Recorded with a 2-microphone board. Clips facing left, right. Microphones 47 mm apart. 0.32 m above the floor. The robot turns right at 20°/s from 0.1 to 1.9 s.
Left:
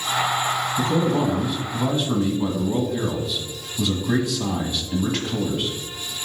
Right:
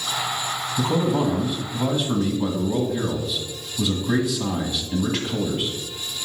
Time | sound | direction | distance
0.8 | a man speaking | 20° right (ahead or behind) | 1.8 m